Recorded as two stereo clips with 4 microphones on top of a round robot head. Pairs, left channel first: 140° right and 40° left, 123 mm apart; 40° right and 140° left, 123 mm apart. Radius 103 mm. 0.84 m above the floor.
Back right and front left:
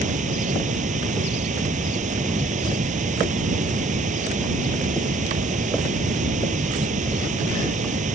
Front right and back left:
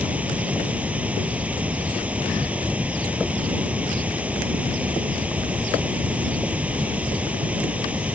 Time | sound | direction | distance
0.0 | running water | 60° left | ?